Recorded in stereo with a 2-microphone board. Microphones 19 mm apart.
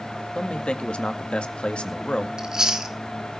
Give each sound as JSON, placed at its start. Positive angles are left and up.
{"t": 0.3, "sound": "a man speaking", "side_deg": 80, "distance_m": 2.0}
{"t": 2.4, "sound": "chewing", "side_deg": -35, "distance_m": 2.0}